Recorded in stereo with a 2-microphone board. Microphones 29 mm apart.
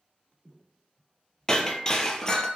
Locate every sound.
1.5 s breaking glass: 20° left (ahead or behind), 0.7 m